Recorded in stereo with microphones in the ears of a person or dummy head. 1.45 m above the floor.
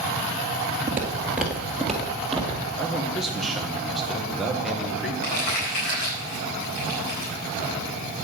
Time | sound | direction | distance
0.9 | footsteps | 10° right (ahead or behind) | 1.5 m
2.8 | a man speaking | centre (ahead or behind) | 1.3 m
5.2 | crumpling | 55° left (ahead or behind) | 4 m